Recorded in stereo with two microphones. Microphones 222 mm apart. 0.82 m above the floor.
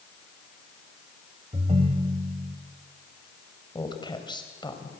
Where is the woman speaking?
20° left (ahead or behind), 3.5 m.